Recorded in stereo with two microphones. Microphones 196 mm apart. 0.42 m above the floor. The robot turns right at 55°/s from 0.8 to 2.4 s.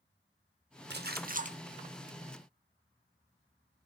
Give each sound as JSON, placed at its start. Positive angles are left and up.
{"t": 0.9, "sound": "a splash", "azimuth_deg": -80, "distance_m": 0.7}